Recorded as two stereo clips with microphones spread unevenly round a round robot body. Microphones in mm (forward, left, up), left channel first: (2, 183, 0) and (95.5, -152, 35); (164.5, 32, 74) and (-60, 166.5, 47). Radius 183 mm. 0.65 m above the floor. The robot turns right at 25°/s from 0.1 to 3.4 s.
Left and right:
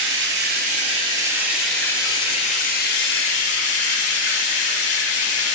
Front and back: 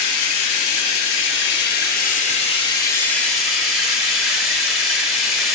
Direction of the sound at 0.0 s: 20° right.